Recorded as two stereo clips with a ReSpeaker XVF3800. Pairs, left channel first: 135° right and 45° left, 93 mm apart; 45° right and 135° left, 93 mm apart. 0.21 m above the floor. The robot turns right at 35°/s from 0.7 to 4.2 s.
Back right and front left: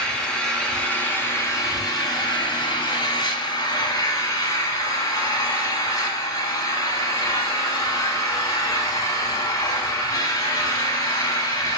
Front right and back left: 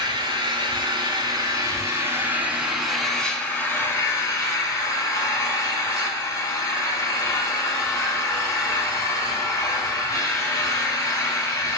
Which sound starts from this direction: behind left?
An engine running, at 0.0 s.